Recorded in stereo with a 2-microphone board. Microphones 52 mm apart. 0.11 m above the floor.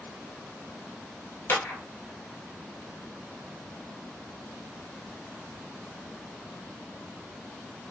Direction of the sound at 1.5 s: 40° left (ahead or behind).